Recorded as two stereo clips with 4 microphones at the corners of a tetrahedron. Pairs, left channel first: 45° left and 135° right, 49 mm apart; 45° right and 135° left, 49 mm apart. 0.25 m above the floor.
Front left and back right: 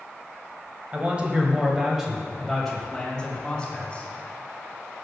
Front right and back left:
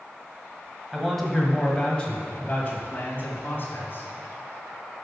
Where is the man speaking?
145° right, 1.6 m; by 4.1 s 20° right, 2 m.